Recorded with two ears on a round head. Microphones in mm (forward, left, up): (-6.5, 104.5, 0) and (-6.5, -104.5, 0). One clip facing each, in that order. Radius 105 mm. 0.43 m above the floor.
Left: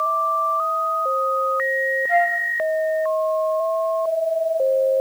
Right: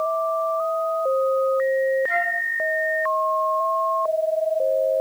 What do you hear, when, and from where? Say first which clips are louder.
2.1 s a flute: left 7 dB; 75° right (ahead or behind), 3 m